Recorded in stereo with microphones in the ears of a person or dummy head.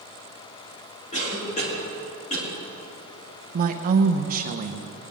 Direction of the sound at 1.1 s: 40° left (ahead or behind).